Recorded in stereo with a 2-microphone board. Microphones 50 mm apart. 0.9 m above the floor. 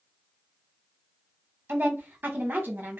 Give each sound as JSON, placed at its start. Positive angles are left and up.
{"t": 1.7, "sound": "a woman speaking", "side_deg": -40, "distance_m": 1.1}